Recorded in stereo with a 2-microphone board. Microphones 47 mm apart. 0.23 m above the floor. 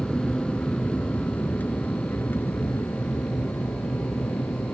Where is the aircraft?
15° left (ahead or behind); by 4.8 s 70° left (ahead or behind).